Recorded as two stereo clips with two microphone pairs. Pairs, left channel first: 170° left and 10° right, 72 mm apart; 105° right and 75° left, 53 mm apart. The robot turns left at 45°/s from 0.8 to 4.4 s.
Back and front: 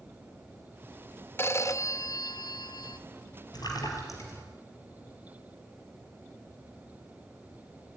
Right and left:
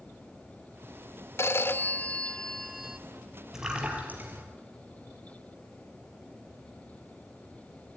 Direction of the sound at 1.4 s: 135° right.